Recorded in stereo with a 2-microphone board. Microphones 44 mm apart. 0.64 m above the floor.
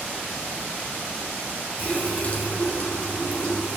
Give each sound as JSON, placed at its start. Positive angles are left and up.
{"t": 1.8, "sound": "a running tap", "side_deg": 50, "distance_m": 4.5}